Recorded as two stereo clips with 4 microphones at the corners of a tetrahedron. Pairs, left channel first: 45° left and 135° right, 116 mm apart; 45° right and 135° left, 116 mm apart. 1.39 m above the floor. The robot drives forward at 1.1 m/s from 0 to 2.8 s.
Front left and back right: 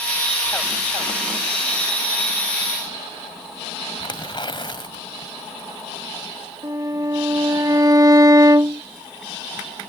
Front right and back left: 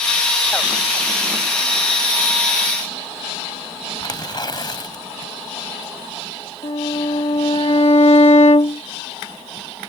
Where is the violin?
75° right.